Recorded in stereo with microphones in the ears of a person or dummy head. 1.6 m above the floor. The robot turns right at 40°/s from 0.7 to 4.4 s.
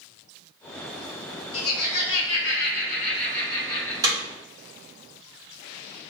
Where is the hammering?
15° right (ahead or behind), 1.3 m; by 4.2 s 20° right (ahead or behind), 1.3 m.